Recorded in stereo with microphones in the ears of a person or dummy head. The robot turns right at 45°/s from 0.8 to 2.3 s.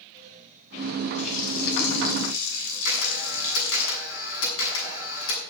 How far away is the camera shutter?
About 7 m.